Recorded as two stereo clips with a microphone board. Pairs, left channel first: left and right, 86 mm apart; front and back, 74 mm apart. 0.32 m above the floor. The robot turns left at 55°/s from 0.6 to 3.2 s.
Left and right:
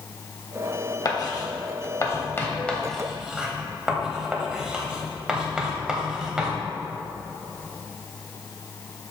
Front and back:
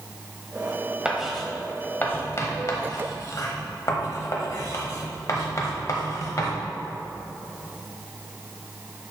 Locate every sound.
1.1 s writing: 110° left, 1.1 m; by 6.6 s 10° right, 1.1 m